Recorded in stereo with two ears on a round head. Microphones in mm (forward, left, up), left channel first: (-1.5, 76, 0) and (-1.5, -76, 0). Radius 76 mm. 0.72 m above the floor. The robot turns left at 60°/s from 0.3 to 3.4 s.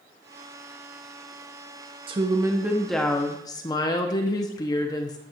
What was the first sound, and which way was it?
A woman speaking, 130° right.